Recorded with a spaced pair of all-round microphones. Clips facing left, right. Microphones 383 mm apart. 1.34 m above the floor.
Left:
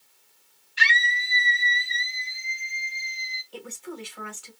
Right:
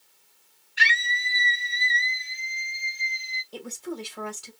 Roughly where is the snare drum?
I don't hear a snare drum.